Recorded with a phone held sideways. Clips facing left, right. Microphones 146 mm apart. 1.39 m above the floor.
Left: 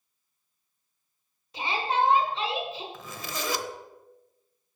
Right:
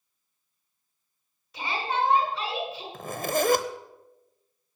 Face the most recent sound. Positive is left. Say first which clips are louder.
# right 10 dB
turn(degrees=-50)  # may be behind; listen again after turning